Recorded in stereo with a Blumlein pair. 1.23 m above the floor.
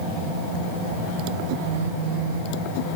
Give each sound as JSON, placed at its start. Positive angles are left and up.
{"t": 1.7, "sound": "a phone buzzing", "azimuth_deg": -60, "distance_m": 0.8}